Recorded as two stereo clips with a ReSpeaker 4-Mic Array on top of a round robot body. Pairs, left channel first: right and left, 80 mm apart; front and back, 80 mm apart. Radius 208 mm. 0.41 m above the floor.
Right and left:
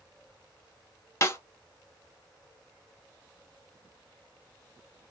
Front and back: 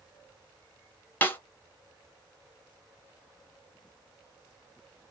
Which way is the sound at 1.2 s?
55° right.